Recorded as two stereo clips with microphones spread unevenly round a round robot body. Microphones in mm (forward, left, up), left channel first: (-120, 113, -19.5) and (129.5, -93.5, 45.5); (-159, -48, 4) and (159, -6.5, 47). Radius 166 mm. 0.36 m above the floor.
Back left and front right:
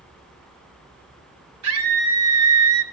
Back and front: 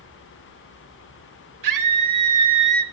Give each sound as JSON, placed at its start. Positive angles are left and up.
{"t": 1.6, "sound": "a scream", "azimuth_deg": 5, "distance_m": 1.8}